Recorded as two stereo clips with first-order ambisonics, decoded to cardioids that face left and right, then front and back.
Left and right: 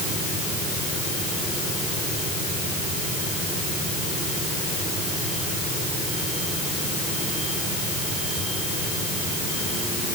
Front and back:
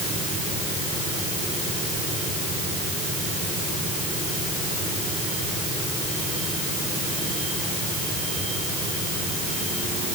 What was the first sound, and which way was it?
Only background noise.